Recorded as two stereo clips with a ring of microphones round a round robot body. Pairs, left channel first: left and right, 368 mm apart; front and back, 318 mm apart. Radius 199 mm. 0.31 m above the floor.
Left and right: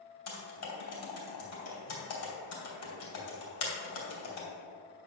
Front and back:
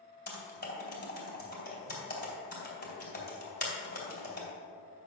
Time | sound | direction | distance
0.3 | typing on a keyboard | 50° left | 3 m